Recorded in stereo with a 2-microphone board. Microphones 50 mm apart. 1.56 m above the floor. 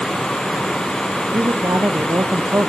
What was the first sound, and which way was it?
A man speaking, 70° right (ahead or behind).